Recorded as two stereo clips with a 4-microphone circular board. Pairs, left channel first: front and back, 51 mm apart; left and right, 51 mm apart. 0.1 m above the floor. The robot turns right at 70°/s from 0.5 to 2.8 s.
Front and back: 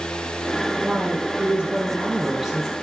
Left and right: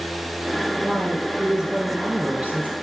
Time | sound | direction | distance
0.8 | a woman speaking | 145° left | 1.2 m